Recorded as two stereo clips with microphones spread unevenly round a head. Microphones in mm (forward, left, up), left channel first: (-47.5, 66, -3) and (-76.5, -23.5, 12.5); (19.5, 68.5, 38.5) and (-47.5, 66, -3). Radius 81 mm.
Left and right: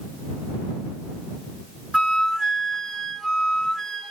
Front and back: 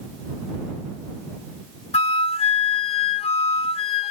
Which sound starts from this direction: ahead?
A flute, at 1.9 s.